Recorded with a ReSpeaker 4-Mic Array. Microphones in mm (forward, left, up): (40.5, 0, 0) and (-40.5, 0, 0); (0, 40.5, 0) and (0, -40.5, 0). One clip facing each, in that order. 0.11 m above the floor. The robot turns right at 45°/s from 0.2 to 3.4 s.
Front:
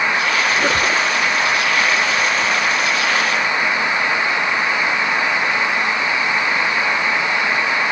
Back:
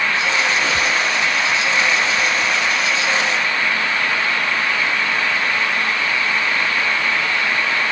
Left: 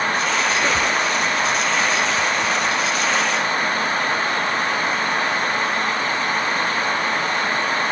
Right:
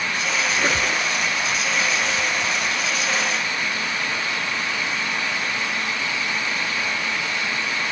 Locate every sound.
0.5 s a squeak: 15° right, 0.5 m; by 1.0 s 10° left, 0.5 m